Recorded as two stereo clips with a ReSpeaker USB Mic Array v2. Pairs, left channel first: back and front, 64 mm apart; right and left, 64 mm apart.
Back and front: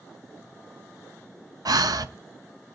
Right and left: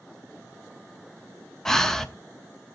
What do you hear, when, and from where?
1.6 s breathing: 5° right, 0.7 m